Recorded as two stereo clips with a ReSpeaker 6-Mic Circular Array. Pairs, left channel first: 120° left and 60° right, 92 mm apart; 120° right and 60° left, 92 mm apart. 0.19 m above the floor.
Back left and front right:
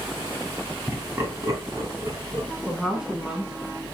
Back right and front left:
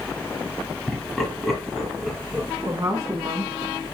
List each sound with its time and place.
0.9 s laughter: 45° right, 1.1 m; by 2.5 s 20° right, 1.8 m
2.6 s a woman speaking: 20° left, 1.4 m